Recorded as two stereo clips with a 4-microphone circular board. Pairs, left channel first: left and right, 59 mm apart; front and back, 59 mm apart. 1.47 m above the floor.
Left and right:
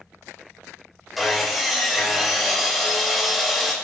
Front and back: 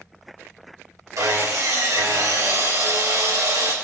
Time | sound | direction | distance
1.2 | sawing | 175° right | 3.5 m